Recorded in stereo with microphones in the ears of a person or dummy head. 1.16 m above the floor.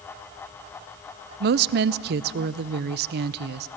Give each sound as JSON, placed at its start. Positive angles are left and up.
{"t": 1.4, "sound": "a woman speaking", "side_deg": -55, "distance_m": 0.5}